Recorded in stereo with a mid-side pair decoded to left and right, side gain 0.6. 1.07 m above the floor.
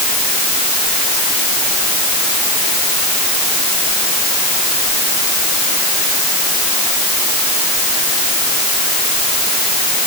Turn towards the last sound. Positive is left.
No sound to turn to.